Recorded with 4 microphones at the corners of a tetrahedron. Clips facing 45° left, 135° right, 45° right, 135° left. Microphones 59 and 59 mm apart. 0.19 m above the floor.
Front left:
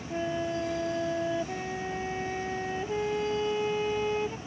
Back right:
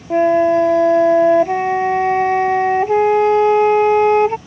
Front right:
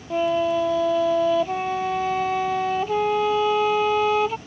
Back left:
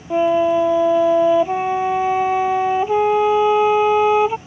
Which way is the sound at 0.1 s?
155° right.